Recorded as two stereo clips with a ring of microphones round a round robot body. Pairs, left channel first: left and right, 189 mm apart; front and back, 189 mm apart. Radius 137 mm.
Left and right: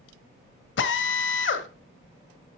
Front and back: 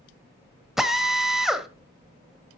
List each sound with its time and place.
0.8 s a drill: 90° left, 1.3 m